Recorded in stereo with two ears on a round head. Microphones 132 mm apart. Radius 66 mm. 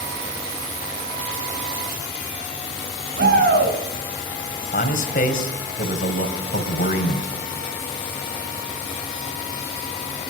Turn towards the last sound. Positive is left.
turn(degrees=60)  # may be behind; listen again after turning